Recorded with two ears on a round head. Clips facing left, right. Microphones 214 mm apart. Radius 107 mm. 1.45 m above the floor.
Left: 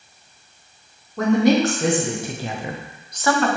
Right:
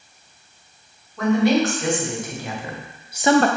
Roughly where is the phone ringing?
I don't hear a phone ringing.